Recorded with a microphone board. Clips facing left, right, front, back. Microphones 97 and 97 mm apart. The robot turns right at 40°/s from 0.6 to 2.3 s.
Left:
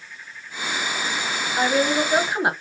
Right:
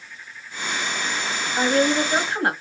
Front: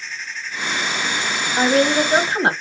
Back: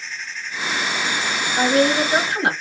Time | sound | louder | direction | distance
1.6 | a woman speaking | right 1 dB, front 1 dB | 5° right | 1.1 m